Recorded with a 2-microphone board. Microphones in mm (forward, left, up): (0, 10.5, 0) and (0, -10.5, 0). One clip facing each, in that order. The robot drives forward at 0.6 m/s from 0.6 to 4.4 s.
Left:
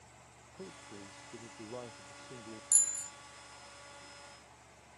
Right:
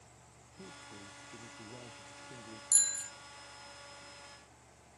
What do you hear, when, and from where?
0.6 s a man speaking: 85° left
2.7 s a bicycle bell: 55° right (ahead or behind); by 3.1 s 50° right (ahead or behind)